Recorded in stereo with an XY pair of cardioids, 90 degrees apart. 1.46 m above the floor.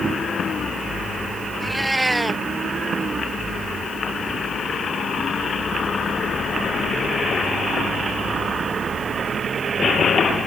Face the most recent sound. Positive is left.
turn(degrees=-15)